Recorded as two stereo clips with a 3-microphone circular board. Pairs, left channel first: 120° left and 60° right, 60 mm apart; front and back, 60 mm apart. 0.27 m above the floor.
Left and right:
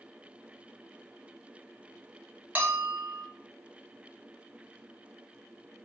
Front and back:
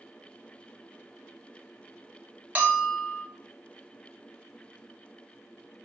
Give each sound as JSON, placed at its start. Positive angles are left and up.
{"t": 2.5, "sound": "a bell", "azimuth_deg": -120, "distance_m": 0.8}